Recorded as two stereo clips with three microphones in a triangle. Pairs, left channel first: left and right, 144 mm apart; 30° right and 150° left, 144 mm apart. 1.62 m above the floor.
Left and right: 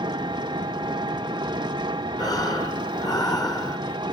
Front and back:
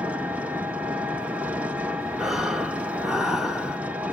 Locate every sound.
0.0 s an engine running: 135° right, 1.1 m
2.2 s breathing: 65° left, 1.3 m